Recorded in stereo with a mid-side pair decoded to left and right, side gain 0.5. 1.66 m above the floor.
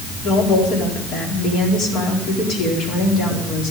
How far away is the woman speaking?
About 4 m.